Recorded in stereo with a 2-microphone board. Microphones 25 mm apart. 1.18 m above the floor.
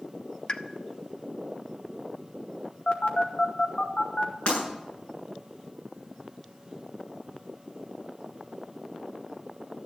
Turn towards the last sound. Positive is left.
turn(degrees=45)  # may be behind; listen again after turning